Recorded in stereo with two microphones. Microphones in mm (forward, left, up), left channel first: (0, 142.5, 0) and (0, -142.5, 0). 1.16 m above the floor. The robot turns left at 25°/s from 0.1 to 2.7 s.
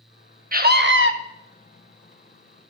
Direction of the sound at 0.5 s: 30° right (ahead or behind).